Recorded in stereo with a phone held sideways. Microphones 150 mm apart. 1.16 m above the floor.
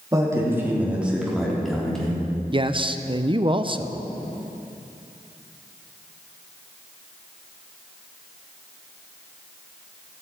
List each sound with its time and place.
0.1 s a man speaking: 20° right (ahead or behind), 3 m; by 2.2 s 5° left (ahead or behind), 4 m
2.5 s a man speaking: 35° right (ahead or behind), 0.5 m